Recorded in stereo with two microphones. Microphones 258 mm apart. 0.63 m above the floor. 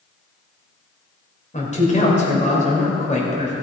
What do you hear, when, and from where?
1.5 s a man speaking: 30° left (ahead or behind), 3 m